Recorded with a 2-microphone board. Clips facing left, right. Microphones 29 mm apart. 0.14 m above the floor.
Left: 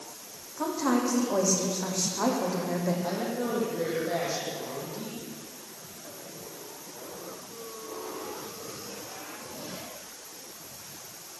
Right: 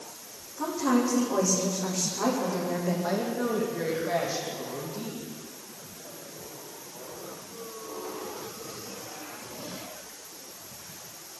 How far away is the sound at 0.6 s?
About 6.5 m.